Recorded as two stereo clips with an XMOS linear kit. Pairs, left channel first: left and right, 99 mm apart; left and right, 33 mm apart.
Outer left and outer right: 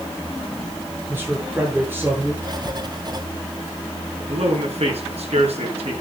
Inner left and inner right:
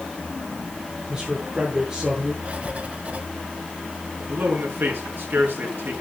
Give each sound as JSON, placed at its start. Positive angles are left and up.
{"t": 1.1, "sound": "a man speaking", "side_deg": -20, "distance_m": 8.0}
{"t": 2.4, "sound": "writing", "side_deg": -40, "distance_m": 1.5}
{"t": 4.2, "sound": "a man speaking", "side_deg": -75, "distance_m": 5.0}